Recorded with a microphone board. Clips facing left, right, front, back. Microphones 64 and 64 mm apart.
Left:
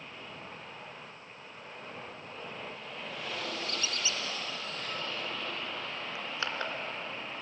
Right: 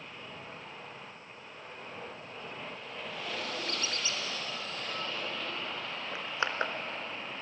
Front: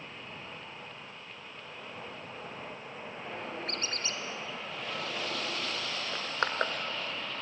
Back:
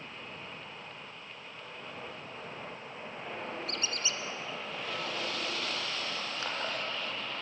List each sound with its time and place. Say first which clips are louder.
3.7 s a squeak: even, even; 40° right, 1.8 m
6.1 s crushing: right 4 dB, front 5 dB; 25° right, 1.7 m